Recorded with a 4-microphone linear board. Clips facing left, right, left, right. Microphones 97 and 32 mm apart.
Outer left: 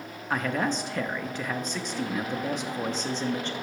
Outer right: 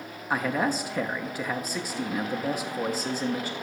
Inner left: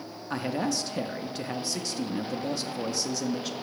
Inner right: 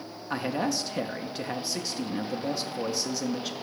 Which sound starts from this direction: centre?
A man speaking, at 0.3 s.